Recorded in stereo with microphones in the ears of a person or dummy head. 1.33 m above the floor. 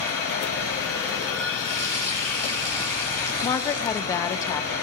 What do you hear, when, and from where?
0.0 s running water: 75° right (ahead or behind), 6 m
3.4 s a woman speaking: 20° left (ahead or behind), 0.8 m